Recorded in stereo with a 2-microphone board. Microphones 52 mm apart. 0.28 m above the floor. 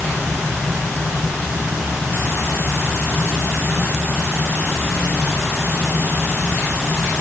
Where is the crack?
No crack in this recording.